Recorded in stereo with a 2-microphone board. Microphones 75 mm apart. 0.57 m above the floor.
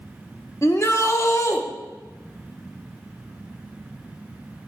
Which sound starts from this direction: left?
A shout, at 0.6 s.